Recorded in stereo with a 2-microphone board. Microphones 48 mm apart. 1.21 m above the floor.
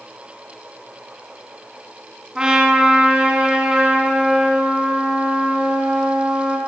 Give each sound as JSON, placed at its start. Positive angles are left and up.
{"t": 2.4, "sound": "a trumpet", "side_deg": -15, "distance_m": 2.5}